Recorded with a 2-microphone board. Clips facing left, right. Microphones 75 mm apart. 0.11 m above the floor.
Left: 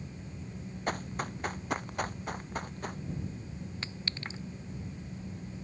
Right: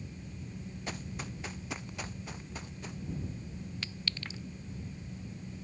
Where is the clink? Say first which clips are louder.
Left 1 dB; 35° left (ahead or behind).